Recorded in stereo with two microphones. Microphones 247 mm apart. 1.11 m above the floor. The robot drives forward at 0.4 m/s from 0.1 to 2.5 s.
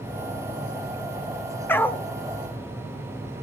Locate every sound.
1.7 s a dog barking: 10° left (ahead or behind), 1.0 m